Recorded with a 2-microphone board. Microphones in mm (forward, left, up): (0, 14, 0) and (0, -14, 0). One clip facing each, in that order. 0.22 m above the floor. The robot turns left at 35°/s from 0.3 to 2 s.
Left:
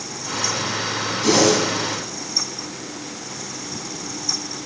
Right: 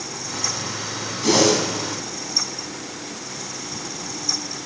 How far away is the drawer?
No drawer in this recording.